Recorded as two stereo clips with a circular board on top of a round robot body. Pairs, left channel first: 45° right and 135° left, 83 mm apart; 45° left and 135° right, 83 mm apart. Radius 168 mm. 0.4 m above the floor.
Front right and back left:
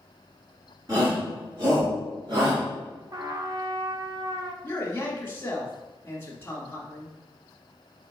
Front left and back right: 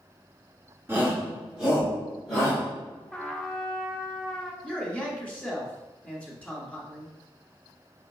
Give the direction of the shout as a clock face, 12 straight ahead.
6 o'clock.